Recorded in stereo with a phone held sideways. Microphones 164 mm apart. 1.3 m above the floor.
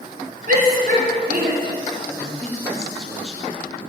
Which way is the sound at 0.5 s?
65° right (ahead or behind).